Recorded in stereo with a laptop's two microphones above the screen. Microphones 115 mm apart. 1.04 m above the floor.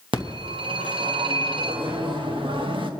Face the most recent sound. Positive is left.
turn(degrees=-50)  # may be behind; listen again after turning